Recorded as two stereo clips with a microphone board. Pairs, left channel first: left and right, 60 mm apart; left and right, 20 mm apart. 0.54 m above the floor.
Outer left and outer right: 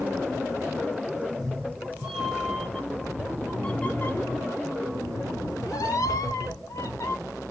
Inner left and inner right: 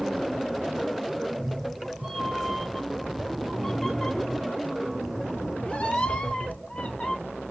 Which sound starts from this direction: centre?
A cat meowing, at 1.2 s.